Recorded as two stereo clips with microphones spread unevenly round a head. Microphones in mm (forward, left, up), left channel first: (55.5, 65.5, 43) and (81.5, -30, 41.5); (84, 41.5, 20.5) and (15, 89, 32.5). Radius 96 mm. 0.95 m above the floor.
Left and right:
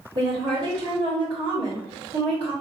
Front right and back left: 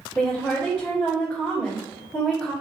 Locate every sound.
0.1 s a woman speaking: 125° right, 1.5 m